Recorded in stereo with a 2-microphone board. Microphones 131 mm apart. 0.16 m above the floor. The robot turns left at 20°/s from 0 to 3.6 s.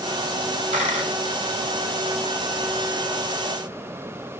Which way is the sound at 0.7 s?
55° right (ahead or behind).